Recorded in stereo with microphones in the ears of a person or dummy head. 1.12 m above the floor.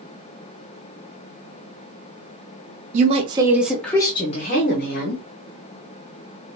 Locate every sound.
2.9 s a woman speaking: 30° right (ahead or behind), 0.7 m; by 5.2 s 55° left (ahead or behind), 1.0 m